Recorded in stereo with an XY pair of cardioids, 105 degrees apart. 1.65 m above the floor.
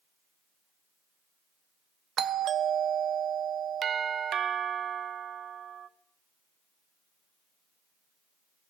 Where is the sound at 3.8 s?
55° right, 0.6 m.